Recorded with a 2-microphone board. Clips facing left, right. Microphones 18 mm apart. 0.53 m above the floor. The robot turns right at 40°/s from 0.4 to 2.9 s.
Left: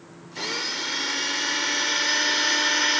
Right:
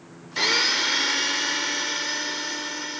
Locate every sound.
0.4 s a blender: 40° right; by 3.0 s 60° left